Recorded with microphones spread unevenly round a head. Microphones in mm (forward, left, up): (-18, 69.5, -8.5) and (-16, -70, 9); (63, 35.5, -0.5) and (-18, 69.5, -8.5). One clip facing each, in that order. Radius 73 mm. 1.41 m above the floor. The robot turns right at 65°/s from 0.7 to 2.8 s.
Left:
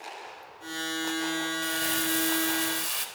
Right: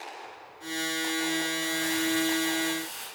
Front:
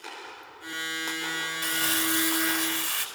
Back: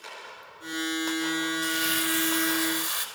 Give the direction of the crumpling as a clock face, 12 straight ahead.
12 o'clock.